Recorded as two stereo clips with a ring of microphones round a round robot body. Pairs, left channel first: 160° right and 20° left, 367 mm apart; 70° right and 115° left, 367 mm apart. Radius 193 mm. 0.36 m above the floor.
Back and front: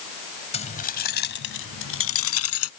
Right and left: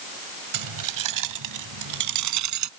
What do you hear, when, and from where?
0.5 s keys jangling: 130° left; by 2.7 s 155° left